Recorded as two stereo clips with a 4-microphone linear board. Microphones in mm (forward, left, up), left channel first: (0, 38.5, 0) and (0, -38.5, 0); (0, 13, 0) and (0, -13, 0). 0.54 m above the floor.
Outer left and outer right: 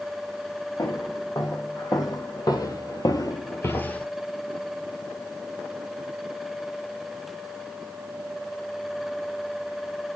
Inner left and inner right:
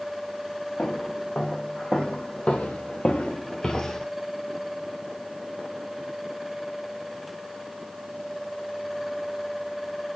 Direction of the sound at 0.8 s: 45° left (ahead or behind).